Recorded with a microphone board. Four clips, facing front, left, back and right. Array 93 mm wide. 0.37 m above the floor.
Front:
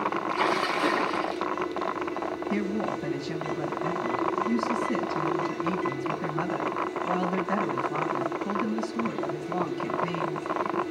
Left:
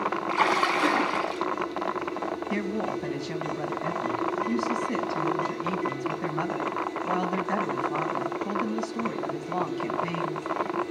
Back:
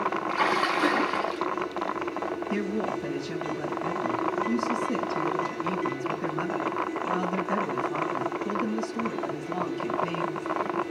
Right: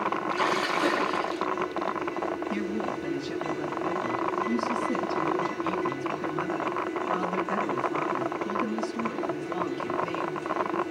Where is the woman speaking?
70° left, 3.5 m.